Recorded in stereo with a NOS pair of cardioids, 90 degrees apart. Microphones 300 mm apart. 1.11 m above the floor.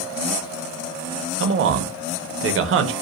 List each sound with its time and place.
1.4 s a man speaking: 45° right, 0.6 m